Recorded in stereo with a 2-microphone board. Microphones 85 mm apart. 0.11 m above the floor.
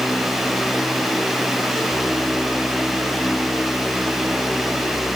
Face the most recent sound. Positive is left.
No sound to turn to.